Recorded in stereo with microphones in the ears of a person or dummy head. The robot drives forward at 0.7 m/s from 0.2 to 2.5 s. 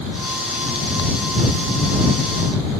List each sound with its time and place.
Only background noise.